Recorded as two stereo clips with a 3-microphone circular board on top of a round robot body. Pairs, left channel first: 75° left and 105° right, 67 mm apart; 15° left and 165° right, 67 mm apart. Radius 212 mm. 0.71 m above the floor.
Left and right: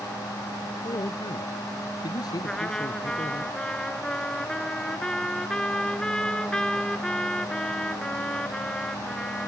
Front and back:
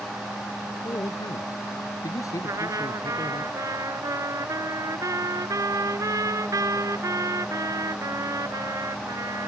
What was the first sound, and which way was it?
A man speaking, 55° left.